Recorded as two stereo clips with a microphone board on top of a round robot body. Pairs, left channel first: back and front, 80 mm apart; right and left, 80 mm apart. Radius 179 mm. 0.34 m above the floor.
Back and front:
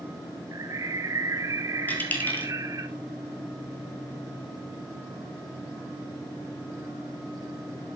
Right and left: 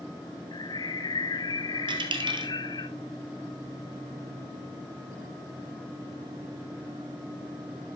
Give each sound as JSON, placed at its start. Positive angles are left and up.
{"t": 0.5, "sound": "a bird", "azimuth_deg": -55, "distance_m": 0.5}
{"t": 1.9, "sound": "a dropped coin", "azimuth_deg": 110, "distance_m": 1.6}